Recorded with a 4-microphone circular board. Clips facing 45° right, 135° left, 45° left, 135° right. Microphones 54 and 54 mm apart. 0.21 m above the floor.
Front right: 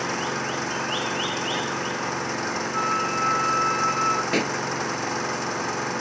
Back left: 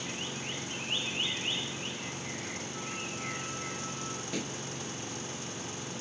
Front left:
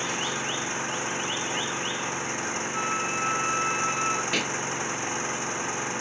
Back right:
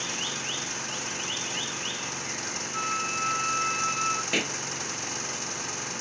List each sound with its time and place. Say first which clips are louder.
0.0 s an engine running: front right 12 dB, front left 5 dB; 20° right
2.7 s a flute: front right 16 dB, even; 45° right
4.3 s a pop: front right 13 dB, front left 1 dB; 55° right